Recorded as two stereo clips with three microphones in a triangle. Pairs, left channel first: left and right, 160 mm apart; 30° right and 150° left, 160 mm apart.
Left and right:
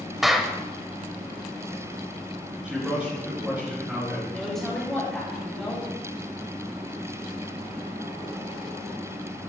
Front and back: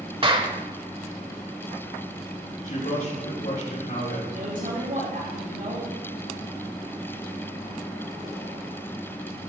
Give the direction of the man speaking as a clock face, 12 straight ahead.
12 o'clock.